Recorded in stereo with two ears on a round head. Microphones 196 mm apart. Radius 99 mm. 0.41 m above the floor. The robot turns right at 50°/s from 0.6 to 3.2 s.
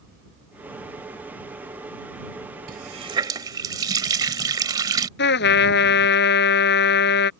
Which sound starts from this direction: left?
A trumpet, at 5.2 s.